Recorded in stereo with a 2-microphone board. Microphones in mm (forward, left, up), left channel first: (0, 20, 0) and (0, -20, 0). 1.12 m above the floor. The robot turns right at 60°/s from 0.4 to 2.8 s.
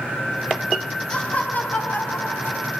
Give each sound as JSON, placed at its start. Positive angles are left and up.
{"t": 1.1, "sound": "laughter", "azimuth_deg": 15, "distance_m": 1.1}